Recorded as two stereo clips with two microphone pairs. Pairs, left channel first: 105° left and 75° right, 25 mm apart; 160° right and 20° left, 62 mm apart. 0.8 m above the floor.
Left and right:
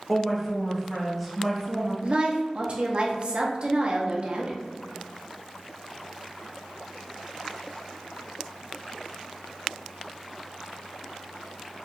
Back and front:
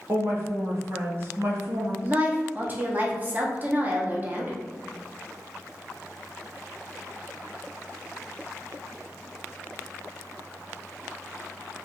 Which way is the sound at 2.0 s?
40° right.